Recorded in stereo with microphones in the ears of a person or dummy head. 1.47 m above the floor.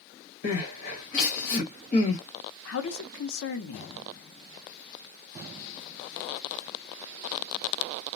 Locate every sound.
0.4 s crying: 50° left (ahead or behind), 1.7 m
2.6 s a man speaking: 75° left (ahead or behind), 0.7 m